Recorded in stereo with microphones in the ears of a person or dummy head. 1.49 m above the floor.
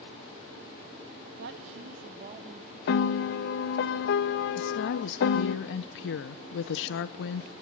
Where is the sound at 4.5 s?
70° left (ahead or behind), 0.7 m.